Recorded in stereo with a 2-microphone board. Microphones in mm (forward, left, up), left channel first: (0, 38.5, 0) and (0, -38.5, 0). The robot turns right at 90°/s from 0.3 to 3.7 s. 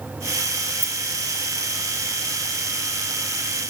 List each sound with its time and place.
0.8 s keys jangling: 25° left (ahead or behind), 3 m; by 1.0 s 10° left (ahead or behind), 3 m